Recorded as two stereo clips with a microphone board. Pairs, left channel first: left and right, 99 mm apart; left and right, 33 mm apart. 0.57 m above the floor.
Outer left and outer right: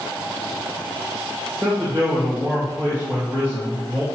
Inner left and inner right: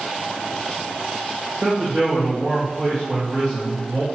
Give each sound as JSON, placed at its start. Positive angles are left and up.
{"t": 1.6, "sound": "a man speaking", "side_deg": -20, "distance_m": 2.0}